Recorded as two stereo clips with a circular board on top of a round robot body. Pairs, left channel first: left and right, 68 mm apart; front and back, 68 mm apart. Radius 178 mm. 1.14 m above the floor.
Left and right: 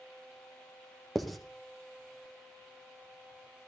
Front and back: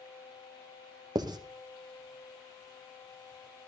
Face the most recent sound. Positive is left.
turn(degrees=180)